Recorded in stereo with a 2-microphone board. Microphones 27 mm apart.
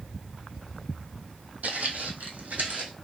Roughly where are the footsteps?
Right.